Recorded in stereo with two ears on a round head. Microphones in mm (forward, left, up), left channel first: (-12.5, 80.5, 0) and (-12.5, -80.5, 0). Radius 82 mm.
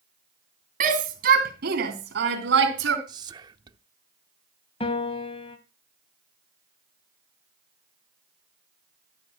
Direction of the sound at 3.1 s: 25° right (ahead or behind).